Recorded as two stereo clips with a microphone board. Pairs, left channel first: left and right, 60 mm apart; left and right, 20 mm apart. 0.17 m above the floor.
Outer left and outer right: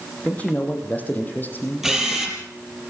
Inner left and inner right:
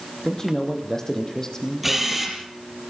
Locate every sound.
0.2 s a man speaking: 25° left (ahead or behind), 6.5 m; by 2.4 s 35° left (ahead or behind), 4 m
1.8 s a camera shutter: 5° right (ahead or behind), 5.5 m